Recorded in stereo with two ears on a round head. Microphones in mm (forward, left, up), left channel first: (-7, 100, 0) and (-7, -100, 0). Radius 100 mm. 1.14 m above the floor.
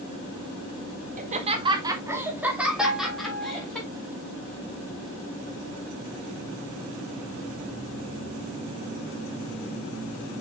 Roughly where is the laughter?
Right.